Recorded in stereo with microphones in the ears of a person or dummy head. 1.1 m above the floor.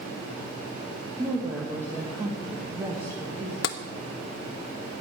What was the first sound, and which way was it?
A woman speaking, 10° right (ahead or behind).